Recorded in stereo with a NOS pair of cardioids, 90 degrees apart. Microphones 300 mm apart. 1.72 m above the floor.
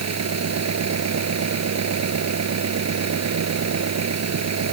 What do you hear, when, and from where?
0.0 s an engine running: 60° right